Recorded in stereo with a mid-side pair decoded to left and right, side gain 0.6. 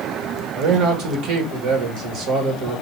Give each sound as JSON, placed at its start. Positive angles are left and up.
{"t": 0.5, "sound": "a man speaking", "azimuth_deg": -70, "distance_m": 1.6}